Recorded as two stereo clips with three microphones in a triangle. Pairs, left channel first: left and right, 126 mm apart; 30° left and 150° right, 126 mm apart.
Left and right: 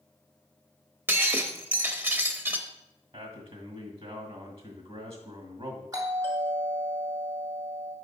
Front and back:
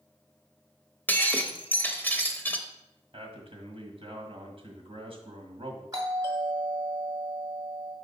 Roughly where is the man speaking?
Behind right.